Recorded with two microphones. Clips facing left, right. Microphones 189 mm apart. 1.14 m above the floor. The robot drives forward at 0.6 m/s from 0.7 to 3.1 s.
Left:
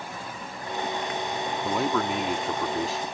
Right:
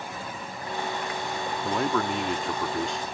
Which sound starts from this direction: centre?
A man speaking, at 1.6 s.